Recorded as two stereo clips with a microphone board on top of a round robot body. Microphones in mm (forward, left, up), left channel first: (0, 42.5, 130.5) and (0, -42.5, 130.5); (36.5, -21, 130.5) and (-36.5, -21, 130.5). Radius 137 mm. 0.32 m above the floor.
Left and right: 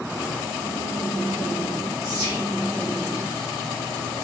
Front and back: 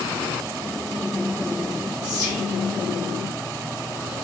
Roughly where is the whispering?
Right.